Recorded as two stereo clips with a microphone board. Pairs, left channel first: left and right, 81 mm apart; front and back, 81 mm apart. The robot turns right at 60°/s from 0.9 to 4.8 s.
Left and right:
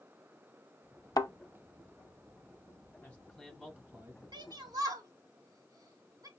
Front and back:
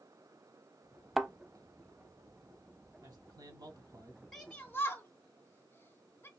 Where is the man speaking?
155° left, 2 m; by 4.2 s 135° right, 2 m.